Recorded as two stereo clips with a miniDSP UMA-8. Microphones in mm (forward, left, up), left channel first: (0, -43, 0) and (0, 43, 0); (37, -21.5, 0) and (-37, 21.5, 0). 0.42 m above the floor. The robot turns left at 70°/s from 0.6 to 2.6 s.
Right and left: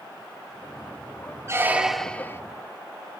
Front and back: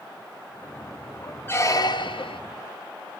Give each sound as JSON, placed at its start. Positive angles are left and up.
{"t": 1.5, "sound": "a squeak", "azimuth_deg": 35, "distance_m": 0.5}